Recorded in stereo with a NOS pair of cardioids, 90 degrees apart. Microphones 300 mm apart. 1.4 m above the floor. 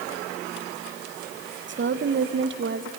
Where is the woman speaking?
40° right, 1.3 m.